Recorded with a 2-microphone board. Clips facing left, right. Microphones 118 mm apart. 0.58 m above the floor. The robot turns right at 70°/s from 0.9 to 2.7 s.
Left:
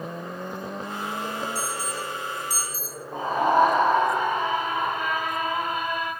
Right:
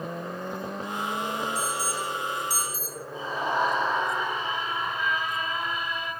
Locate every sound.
1.6 s an alarm: 75° left (ahead or behind), 4 m; by 3.0 s centre (ahead or behind), 4 m
3.1 s a scream: 55° left (ahead or behind), 3.5 m